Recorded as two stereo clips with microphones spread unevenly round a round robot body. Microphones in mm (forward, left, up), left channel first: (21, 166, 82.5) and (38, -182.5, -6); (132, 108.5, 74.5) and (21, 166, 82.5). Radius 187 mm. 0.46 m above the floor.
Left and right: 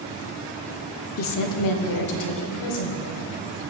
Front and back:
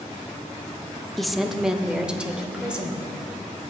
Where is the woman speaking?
55° left, 0.9 m; by 3.1 s 70° left, 3 m.